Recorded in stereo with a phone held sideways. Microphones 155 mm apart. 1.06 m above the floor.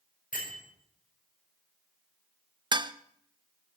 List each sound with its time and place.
0.3 s a bell: 65° left (ahead or behind), 5.5 m
2.7 s dishes clattering: 30° right (ahead or behind), 0.6 m